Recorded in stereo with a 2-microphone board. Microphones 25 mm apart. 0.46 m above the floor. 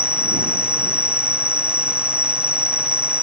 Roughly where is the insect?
Right.